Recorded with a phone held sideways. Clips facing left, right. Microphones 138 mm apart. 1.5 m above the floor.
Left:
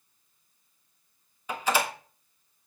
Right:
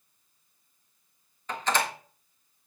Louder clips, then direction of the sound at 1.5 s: Left 1 dB; 10° left (ahead or behind).